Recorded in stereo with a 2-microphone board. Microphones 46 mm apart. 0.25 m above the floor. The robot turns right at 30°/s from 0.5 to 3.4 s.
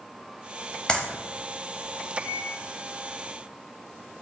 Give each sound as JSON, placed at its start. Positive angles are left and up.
{"t": 0.9, "sound": "a clap", "side_deg": 20, "distance_m": 0.7}
{"t": 2.2, "sound": "a microwave", "side_deg": 55, "distance_m": 2.0}